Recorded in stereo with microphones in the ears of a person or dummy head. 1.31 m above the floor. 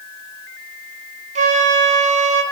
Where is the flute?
35° right (ahead or behind), 0.6 m.